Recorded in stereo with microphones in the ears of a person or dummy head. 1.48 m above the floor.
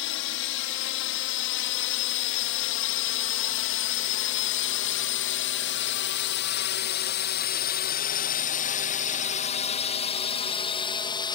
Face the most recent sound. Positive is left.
turn(degrees=20)  # may be behind; listen again after turning